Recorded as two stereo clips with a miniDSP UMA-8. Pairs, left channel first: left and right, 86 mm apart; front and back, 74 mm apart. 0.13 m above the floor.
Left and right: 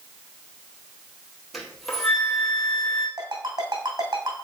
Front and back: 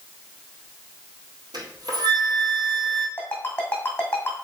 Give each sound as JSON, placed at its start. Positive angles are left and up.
{"t": 1.5, "sound": "a flute", "azimuth_deg": 175, "distance_m": 1.7}
{"t": 3.2, "sound": "a ringtone", "azimuth_deg": -65, "distance_m": 2.5}